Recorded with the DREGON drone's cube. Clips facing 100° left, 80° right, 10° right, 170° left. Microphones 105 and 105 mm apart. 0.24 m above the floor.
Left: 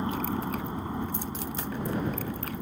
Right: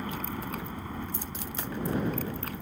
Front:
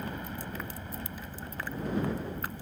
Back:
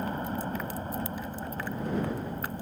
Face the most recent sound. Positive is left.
turn(degrees=165)